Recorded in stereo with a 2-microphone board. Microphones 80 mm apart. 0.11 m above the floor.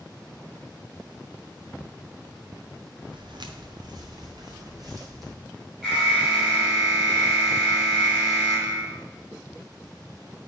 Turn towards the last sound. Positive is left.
turn(degrees=-10)  # may be behind; listen again after turning